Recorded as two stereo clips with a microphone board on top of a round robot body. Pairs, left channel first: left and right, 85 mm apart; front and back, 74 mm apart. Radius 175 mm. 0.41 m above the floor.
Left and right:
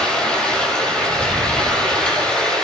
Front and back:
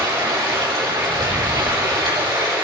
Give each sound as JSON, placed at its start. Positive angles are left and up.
{"t": 0.0, "sound": "running water", "azimuth_deg": 170, "distance_m": 5.5}